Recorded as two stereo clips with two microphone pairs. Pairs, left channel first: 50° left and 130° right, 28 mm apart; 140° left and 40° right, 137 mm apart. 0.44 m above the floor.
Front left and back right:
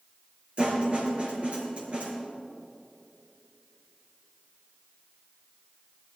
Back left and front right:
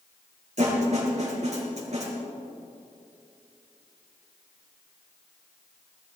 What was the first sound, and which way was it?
A snare drum, 80° right.